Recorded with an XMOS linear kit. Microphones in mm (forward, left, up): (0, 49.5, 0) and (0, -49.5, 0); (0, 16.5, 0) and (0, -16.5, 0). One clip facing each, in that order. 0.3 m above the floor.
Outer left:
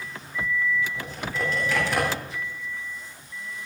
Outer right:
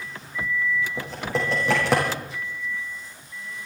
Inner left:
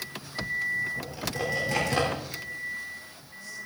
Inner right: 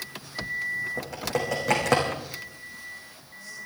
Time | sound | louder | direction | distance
1.0 | typing on a keyboard | outer right 3 dB, inner right 3 dB | 85° right | 6 m